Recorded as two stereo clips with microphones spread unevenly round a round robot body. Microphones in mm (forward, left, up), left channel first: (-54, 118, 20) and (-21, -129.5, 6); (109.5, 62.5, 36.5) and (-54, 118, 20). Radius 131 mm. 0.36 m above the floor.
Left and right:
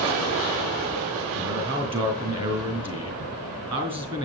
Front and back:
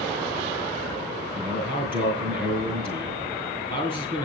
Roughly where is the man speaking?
Behind right.